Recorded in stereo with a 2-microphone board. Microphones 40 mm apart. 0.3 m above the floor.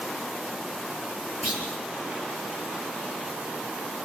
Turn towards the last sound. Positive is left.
turn(degrees=-10)  # may be behind; listen again after turning